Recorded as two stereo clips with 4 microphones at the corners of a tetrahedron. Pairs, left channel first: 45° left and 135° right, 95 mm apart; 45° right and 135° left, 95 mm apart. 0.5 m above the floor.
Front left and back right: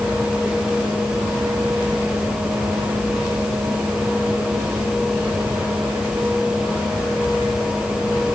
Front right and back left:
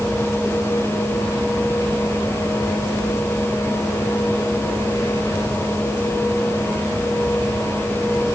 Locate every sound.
Only background noise.